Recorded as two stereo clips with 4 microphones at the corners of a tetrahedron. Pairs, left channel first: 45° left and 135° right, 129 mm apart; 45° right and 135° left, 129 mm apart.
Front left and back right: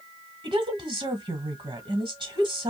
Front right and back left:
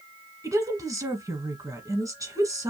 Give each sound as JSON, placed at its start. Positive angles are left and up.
{"t": 0.4, "sound": "a woman speaking", "azimuth_deg": -170, "distance_m": 1.4}